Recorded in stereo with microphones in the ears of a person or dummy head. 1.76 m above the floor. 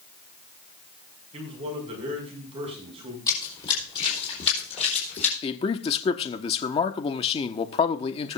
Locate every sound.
1.3 s a man speaking: 30° right (ahead or behind), 5 m
3.3 s running footsteps: 20° left (ahead or behind), 4 m; by 5.3 s 40° left (ahead or behind), 4 m
5.4 s a man speaking: 30° left (ahead or behind), 1.0 m